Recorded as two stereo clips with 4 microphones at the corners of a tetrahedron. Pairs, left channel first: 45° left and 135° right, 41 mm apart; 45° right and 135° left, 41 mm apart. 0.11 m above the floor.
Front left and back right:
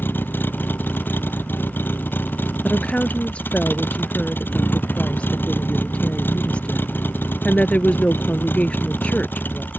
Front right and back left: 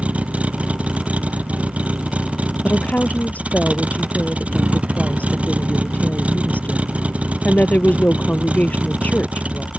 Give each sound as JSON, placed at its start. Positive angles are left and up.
{"t": 0.0, "sound": "a vehicle", "azimuth_deg": 80}
{"t": 2.6, "sound": "a woman speaking", "azimuth_deg": -10}